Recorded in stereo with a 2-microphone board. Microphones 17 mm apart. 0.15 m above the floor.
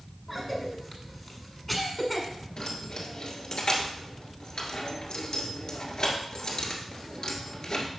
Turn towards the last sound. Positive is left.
turn(degrees=60)  # may be behind; listen again after turning